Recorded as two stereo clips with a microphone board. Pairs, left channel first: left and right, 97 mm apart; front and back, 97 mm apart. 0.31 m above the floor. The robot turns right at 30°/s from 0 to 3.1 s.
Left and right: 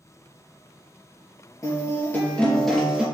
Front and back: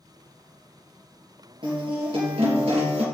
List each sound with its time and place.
1.6 s a guitar: 145° left, 3.5 m; by 3.0 s 170° right, 3.5 m